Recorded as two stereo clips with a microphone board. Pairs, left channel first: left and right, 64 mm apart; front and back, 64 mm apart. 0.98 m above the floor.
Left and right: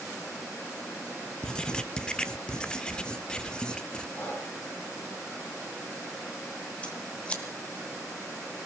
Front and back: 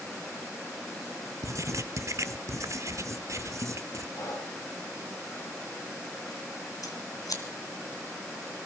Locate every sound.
1.4 s writing: 165° left, 0.8 m
4.2 s breathing: 30° left, 5.5 m
6.8 s scissors: 20° left, 2.5 m